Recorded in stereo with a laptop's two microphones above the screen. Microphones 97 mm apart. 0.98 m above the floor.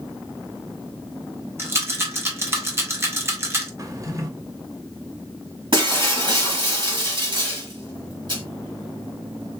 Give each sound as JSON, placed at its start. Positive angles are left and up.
{"t": 1.6, "sound": "a rattle", "side_deg": -25, "distance_m": 0.7}
{"t": 3.8, "sound": "a drawer", "side_deg": -30, "distance_m": 0.7}
{"t": 5.7, "sound": "breaking glass", "side_deg": -50, "distance_m": 1.5}